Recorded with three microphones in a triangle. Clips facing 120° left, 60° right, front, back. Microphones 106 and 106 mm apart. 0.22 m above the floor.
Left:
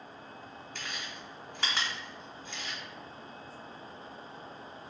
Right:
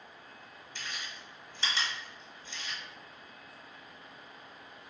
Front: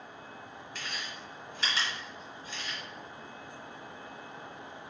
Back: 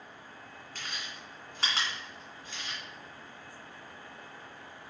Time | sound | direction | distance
0.8 | chewing | 145° left | 2 m